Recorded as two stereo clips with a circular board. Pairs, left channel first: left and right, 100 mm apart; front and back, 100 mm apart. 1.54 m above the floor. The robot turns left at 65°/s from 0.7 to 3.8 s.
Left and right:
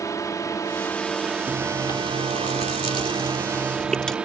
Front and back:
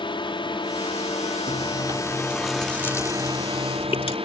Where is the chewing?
160° left; by 4.2 s 5° left.